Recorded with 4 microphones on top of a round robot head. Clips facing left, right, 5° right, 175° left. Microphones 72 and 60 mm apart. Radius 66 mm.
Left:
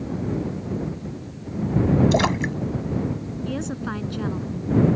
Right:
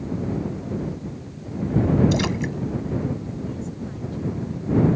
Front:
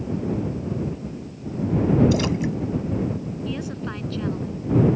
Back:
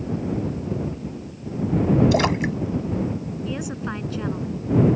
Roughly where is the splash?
Behind left.